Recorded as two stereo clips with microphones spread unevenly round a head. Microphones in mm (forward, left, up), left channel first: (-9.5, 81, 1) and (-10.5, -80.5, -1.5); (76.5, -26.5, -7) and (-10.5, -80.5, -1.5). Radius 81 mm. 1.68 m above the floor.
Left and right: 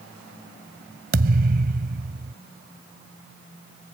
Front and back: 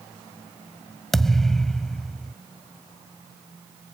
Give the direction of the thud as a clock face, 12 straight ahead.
2 o'clock.